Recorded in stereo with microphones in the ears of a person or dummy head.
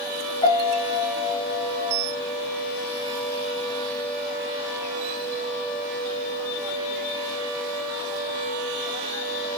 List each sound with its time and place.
0.4 s a piano: 25° left (ahead or behind), 3 m